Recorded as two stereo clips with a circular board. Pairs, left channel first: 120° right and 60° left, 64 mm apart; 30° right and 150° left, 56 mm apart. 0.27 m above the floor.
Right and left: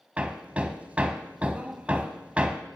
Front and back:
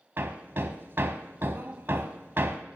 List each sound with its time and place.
0.2 s hammering: 120° left, 1.1 m